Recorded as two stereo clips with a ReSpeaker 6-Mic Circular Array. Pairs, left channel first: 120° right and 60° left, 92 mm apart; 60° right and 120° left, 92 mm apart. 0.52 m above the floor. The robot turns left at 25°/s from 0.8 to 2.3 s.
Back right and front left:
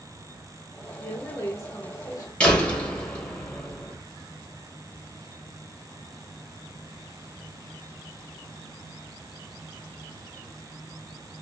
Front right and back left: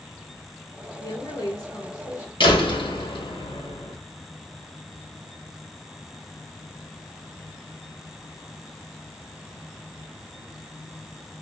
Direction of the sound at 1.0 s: 65° right.